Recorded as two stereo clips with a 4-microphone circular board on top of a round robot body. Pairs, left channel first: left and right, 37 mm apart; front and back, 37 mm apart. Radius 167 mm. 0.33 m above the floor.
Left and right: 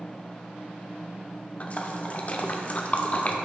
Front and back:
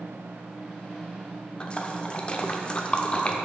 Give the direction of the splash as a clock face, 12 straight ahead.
10 o'clock.